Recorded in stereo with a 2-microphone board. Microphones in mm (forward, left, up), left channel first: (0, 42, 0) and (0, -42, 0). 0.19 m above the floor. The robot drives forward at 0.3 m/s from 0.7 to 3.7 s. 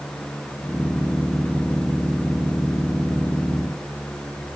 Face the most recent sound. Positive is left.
No sound to turn to.